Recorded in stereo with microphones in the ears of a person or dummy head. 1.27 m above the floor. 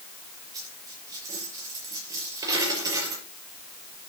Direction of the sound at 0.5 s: 20° right (ahead or behind).